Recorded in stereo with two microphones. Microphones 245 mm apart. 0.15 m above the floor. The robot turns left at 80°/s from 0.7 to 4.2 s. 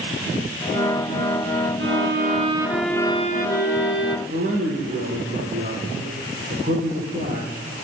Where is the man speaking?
40° right (ahead or behind), 8.5 m.